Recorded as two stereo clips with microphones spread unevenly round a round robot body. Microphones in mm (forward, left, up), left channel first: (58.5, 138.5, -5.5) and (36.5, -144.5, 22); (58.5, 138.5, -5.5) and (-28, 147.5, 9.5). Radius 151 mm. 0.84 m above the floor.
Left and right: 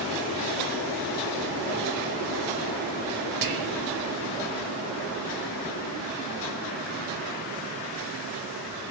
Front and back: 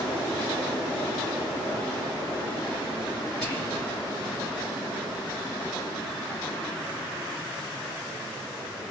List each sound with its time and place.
3.4 s whispering: 90° right, 0.8 m